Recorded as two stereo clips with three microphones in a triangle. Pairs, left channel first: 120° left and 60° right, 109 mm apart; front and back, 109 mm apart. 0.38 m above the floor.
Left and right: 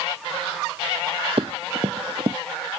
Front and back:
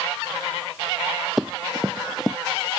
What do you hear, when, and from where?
1.4 s running footsteps: 90° right